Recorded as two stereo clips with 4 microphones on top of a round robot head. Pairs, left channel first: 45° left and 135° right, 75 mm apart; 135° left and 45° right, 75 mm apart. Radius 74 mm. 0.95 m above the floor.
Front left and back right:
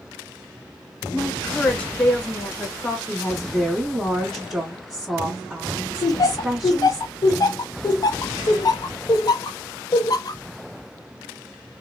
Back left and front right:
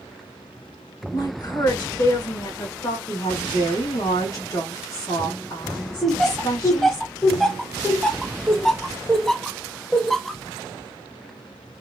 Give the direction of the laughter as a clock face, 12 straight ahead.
10 o'clock.